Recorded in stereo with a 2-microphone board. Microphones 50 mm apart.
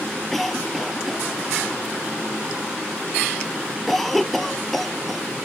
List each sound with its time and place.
0.3 s a cough: 5° left (ahead or behind)